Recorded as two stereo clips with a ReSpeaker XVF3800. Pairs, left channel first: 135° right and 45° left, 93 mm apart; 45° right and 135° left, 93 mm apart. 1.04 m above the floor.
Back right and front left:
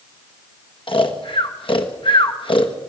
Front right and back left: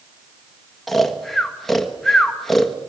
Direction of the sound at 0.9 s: 135° right.